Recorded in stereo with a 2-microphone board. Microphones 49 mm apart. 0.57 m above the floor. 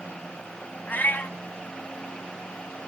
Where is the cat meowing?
35° left (ahead or behind), 0.8 m.